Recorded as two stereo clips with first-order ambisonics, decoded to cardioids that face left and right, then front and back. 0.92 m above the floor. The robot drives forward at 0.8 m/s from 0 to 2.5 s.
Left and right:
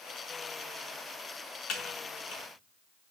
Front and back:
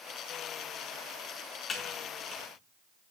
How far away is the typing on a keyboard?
About 1.0 m.